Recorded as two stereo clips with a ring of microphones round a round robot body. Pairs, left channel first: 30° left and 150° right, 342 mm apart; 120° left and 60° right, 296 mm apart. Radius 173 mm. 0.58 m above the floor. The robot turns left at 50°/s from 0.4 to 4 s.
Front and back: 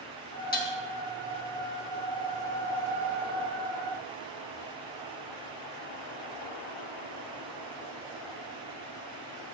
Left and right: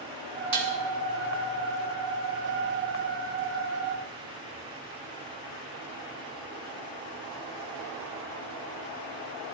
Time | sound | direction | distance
0.5 | dishes clattering | 35° right | 2.5 m